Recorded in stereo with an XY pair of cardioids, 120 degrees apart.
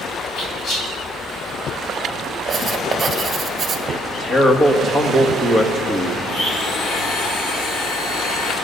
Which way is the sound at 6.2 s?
60° left.